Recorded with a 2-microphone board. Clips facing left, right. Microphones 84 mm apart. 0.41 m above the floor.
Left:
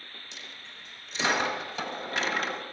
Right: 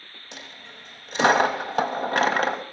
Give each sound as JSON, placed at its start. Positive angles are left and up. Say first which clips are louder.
{"t": 0.3, "sound": "a dropped coin", "louder": "right 4 dB", "side_deg": -60, "distance_m": 1.2}